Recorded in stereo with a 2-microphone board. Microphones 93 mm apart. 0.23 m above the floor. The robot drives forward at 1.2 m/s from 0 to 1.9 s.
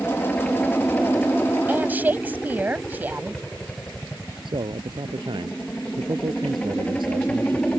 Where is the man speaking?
55° right (ahead or behind).